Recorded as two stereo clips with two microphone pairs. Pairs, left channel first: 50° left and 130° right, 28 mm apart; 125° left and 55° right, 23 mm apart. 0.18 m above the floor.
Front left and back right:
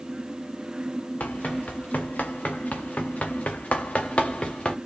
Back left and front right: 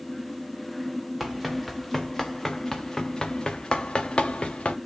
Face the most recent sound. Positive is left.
turn(degrees=95)